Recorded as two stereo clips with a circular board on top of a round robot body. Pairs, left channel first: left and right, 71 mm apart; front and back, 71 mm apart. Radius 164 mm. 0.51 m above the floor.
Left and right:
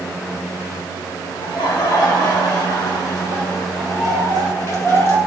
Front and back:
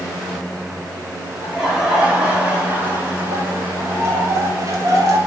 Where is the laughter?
95° left, 4 m; by 5.2 s 140° left, 3.5 m.